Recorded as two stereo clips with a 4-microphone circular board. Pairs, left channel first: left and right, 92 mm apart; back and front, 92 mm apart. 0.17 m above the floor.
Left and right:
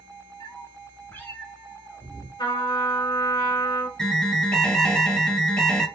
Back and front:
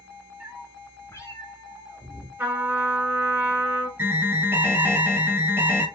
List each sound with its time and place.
0.4 s a cat meowing: 70° left, 0.9 m; by 2.3 s 170° right, 1.7 m
2.4 s a trumpet: 65° left, 1.5 m
4.0 s an alarm: 20° left, 0.7 m